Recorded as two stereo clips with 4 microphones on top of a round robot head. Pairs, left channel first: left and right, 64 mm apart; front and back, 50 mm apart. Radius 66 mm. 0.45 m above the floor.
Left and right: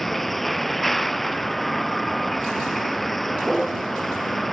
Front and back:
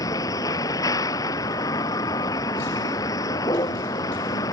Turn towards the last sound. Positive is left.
turn(degrees=0)